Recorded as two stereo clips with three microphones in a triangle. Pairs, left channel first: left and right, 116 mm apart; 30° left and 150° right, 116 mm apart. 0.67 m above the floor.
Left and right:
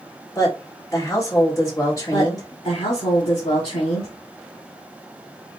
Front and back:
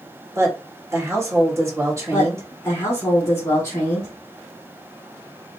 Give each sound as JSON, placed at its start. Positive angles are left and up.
{"t": 0.3, "sound": "a woman speaking", "azimuth_deg": 150, "distance_m": 2.5}
{"t": 2.1, "sound": "a woman speaking", "azimuth_deg": 95, "distance_m": 2.5}